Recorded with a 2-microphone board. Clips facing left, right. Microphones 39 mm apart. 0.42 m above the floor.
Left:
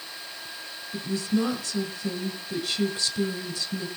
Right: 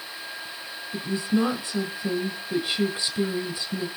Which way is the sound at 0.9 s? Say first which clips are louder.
Right 2 dB; 25° right (ahead or behind).